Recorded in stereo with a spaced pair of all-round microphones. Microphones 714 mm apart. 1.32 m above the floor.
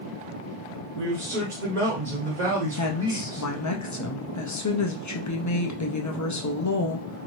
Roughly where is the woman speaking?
Left.